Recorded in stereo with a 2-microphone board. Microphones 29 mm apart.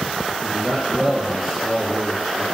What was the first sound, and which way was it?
A man speaking, centre (ahead or behind).